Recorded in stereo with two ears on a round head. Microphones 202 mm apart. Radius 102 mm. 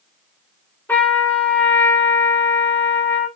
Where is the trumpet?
10° left (ahead or behind), 2.5 m.